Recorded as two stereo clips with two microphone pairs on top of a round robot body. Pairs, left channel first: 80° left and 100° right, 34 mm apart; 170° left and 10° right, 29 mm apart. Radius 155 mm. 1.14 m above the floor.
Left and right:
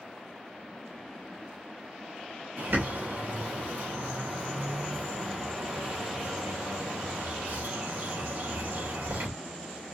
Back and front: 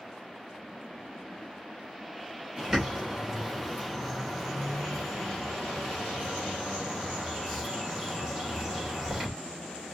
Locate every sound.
2.6 s a bird: 100° right, 3 m